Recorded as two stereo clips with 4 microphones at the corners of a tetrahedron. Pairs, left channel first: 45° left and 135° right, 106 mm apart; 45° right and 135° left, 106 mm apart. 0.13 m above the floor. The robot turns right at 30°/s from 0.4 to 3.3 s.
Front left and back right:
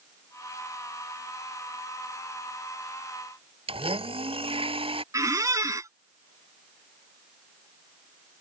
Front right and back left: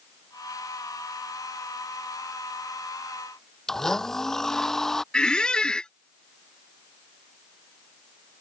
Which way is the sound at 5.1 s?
120° right.